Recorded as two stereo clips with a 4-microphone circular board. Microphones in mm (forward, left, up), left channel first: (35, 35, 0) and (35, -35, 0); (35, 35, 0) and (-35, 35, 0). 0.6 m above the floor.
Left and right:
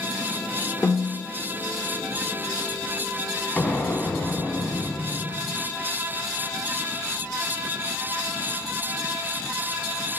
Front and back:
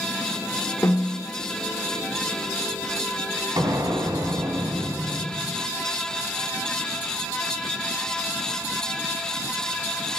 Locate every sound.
0.8 s a snare drum: 40° left, 1.7 m
3.6 s an explosion: 160° left, 1.9 m